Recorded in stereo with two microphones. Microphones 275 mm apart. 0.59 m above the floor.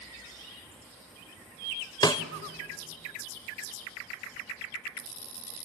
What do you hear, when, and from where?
2.0 s a snare drum: 15° left (ahead or behind), 0.6 m